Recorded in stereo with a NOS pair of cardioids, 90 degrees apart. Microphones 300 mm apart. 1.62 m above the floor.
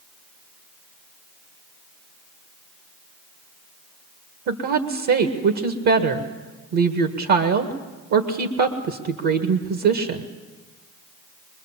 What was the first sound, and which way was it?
A woman speaking, 65° right.